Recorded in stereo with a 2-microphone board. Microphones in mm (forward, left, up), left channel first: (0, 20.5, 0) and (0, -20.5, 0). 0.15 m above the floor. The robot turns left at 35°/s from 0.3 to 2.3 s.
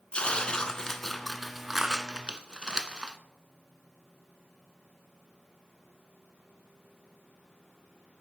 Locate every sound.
0.1 s tearing paper: 35° left, 0.7 m; by 3.2 s 35° right, 0.7 m